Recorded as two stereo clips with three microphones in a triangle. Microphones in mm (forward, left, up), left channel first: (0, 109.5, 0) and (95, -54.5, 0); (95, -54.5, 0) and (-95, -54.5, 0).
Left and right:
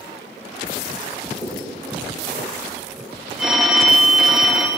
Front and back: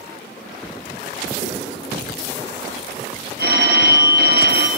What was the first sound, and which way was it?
Writing, 175° right.